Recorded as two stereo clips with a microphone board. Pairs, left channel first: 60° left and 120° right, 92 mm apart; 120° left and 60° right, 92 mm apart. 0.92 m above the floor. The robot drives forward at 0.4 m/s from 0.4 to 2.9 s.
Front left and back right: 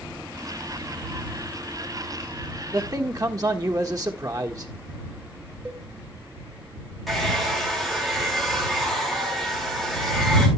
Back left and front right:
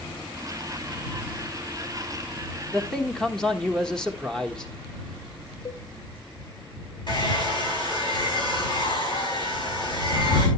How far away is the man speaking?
About 1.2 m.